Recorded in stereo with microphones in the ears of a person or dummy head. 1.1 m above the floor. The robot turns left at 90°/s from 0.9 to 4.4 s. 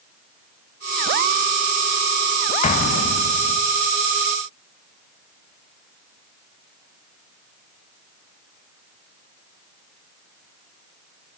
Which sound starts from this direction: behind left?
An explosion, at 2.6 s.